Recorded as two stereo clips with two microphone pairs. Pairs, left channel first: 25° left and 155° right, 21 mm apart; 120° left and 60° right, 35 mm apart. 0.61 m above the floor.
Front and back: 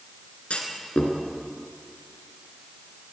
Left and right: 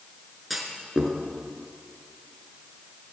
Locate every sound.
0.5 s a clunk: 30° left, 4 m